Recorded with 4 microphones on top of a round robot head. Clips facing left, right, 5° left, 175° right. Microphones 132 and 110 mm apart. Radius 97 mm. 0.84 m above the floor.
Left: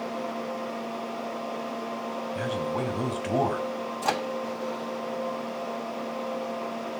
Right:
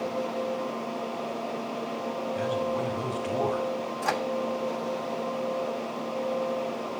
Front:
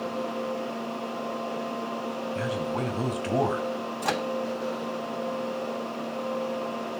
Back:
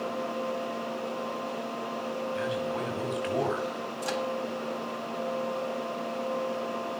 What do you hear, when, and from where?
2.4 s a man speaking: 55° left, 6 m; by 3.7 s 60° left, 5.5 m
4.0 s a microwave: 25° left, 1.4 m